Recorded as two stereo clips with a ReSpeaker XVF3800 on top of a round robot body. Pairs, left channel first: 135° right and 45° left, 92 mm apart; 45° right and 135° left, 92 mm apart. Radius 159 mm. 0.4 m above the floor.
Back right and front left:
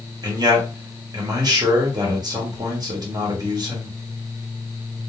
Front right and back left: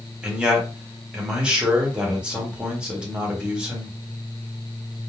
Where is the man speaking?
60° left, 1.6 m.